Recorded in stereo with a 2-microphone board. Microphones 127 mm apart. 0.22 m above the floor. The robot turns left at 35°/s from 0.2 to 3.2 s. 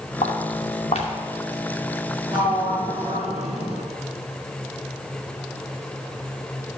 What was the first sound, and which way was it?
Footsteps, 80° left.